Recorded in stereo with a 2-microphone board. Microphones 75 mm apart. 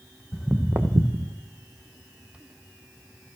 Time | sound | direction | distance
0.3 | footsteps | centre (ahead or behind) | 0.6 m